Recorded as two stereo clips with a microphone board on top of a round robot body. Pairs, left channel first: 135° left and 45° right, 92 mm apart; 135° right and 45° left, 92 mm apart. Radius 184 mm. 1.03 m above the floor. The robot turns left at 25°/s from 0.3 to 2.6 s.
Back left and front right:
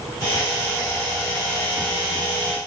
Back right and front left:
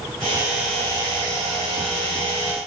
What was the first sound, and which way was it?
Only background noise.